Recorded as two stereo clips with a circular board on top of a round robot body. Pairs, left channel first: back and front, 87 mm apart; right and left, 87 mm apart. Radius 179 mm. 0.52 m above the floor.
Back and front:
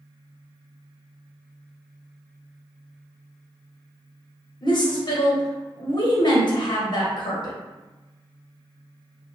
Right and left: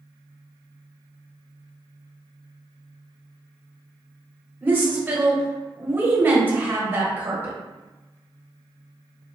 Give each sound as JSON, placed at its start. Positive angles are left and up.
{"t": 4.6, "sound": "a woman speaking", "azimuth_deg": 155, "distance_m": 1.3}